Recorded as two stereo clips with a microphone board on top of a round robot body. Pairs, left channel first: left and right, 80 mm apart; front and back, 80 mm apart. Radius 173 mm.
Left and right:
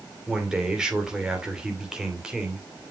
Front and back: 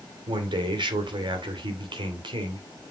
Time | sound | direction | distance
0.3 | a man speaking | 175° right | 3 m